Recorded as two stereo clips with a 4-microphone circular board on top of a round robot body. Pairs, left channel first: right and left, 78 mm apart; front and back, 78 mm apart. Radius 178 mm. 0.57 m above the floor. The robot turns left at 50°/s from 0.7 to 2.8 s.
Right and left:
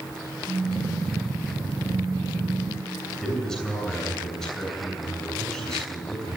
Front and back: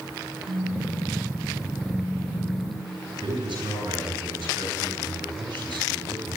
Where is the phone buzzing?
155° left, 6 m; by 3.0 s 50° left, 6 m.